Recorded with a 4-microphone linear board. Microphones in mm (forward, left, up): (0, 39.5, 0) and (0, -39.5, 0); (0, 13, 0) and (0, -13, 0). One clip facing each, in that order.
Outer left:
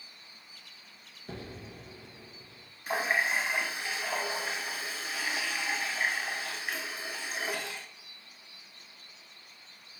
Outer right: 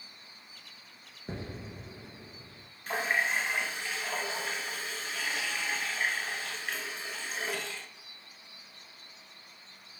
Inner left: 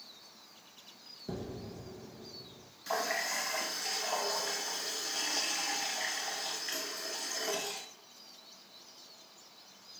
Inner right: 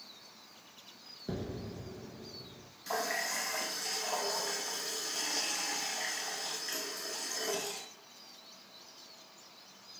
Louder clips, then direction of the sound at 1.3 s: Outer right 2 dB, inner right 2 dB; 30° right (ahead or behind).